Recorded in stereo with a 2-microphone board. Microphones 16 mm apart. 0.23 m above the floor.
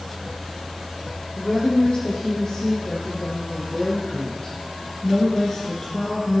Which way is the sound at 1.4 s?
60° left (ahead or behind).